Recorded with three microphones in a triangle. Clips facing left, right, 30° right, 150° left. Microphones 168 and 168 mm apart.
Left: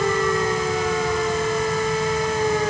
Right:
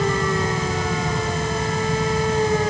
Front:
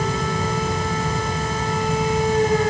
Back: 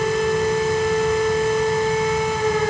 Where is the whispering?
I don't hear whispering.